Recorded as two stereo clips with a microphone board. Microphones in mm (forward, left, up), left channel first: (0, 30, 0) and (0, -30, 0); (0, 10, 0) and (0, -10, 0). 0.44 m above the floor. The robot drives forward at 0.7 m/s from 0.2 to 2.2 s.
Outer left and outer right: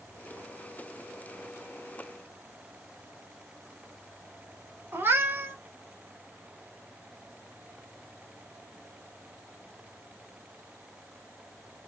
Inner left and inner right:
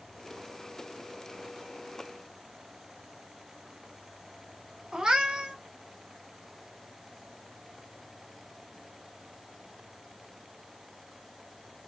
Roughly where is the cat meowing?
Right.